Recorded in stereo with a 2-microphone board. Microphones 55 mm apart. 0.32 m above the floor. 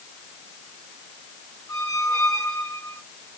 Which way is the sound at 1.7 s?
60° left (ahead or behind).